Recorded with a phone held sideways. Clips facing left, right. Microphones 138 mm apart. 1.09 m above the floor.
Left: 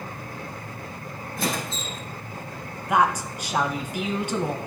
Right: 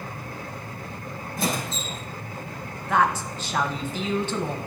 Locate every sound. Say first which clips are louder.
1.4 s a squeak: right 1 dB; 45° right (ahead or behind), 3.5 m
2.9 s a woman speaking: left 1 dB; 10° left (ahead or behind), 0.9 m